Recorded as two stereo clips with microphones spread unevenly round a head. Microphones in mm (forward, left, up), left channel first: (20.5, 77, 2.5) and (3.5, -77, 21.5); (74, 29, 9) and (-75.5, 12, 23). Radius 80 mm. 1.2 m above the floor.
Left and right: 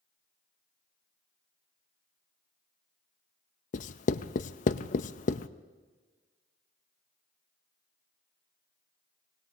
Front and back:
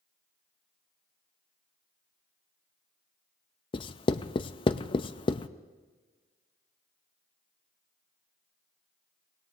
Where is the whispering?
No whispering in this recording.